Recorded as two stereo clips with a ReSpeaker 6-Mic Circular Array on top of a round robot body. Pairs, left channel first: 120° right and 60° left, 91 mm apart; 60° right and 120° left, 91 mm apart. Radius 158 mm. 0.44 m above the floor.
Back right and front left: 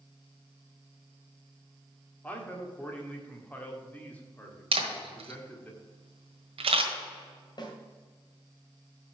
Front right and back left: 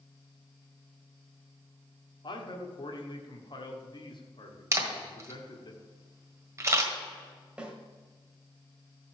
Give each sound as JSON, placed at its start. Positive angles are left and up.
{"t": 2.2, "sound": "a man speaking", "azimuth_deg": -50, "distance_m": 1.9}
{"t": 4.7, "sound": "a camera shutter", "azimuth_deg": 60, "distance_m": 1.6}
{"t": 7.6, "sound": "a snare drum", "azimuth_deg": -160, "distance_m": 1.9}